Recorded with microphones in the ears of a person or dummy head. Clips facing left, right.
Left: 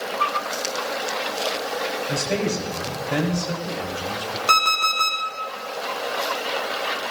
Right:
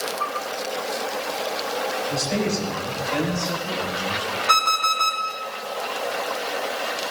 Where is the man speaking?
60° left (ahead or behind), 3.5 m; by 4.4 s 85° left, 4.5 m.